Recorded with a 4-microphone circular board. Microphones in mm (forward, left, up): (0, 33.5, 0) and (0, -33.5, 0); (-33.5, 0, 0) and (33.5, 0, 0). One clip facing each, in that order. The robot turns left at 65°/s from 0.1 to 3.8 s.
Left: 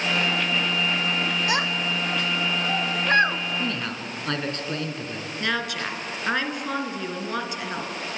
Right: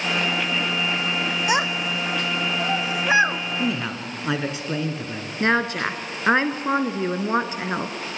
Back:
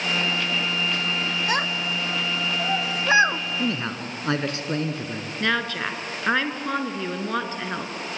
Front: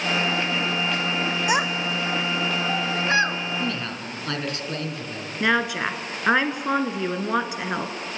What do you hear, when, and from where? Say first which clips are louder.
1.5 s a child speaking: right 2 dB, front 2 dB; 50° right, 0.7 m; by 3.4 s 175° right, 0.7 m
3.6 s a man speaking: right 3 dB, back 2 dB; 140° right, 1.8 m; by 5.3 s 155° right, 1.8 m
5.4 s a woman speaking: right 7 dB, front 3 dB; 65° right, 1.8 m